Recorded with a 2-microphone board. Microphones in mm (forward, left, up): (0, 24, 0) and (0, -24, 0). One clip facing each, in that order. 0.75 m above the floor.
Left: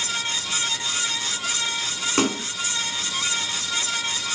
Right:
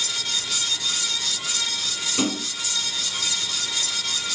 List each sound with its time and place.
2.2 s a splash: 60° left (ahead or behind), 1.6 m